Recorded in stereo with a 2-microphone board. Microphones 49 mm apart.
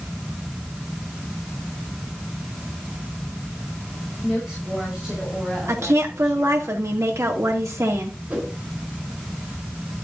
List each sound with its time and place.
4.2 s a woman speaking: 15° right (ahead or behind), 5.5 m
5.7 s a woman speaking: 75° right (ahead or behind), 2.5 m
8.3 s a whoosh: 25° right (ahead or behind), 4 m